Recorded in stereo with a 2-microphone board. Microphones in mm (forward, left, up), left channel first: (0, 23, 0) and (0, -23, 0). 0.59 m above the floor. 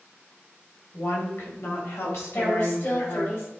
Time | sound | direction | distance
0.9 | a woman speaking | 70° left (ahead or behind) | 3 m
2.3 | a woman speaking | 55° left (ahead or behind) | 3.5 m